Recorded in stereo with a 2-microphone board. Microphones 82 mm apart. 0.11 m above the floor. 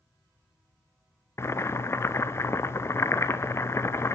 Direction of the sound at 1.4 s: 35° left (ahead or behind).